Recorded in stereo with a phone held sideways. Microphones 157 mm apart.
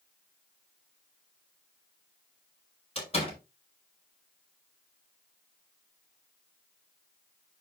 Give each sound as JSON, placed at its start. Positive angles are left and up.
{"t": 3.0, "sound": "a door slam", "side_deg": 40, "distance_m": 5.5}